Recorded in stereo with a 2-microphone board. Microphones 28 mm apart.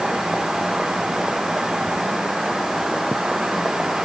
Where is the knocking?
I don't hear knocking.